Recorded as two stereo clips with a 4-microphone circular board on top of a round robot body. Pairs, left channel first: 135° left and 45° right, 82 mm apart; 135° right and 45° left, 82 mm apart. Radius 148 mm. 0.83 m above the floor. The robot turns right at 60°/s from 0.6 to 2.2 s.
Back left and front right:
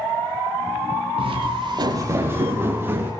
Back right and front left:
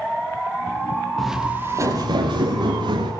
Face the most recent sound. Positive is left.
turn(degrees=20)